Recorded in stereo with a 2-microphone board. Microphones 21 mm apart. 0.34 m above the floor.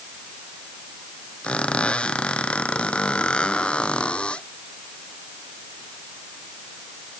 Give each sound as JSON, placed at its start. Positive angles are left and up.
{"t": 1.4, "sound": "a squeak", "side_deg": 75}